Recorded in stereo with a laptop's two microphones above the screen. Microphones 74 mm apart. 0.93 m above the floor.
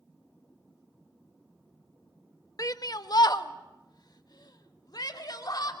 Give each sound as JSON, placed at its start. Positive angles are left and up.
{"t": 2.6, "sound": "a shout", "side_deg": 50, "distance_m": 1.0}